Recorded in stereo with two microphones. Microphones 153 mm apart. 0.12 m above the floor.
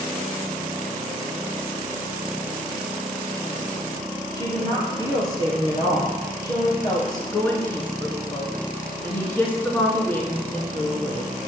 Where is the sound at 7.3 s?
15° left (ahead or behind), 1.2 m.